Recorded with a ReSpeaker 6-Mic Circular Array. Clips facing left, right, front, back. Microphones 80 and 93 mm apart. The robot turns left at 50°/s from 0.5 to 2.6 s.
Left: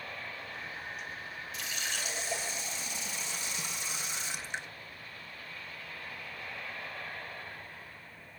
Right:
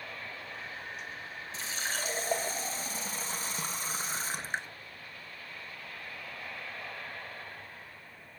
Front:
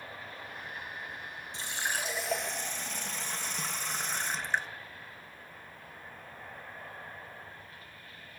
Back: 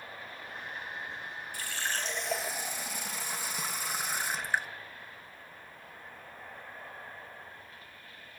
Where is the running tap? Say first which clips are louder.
Right 3 dB, front 1 dB; 50° right, 0.6 m; by 4.7 s 105° right, 0.6 m.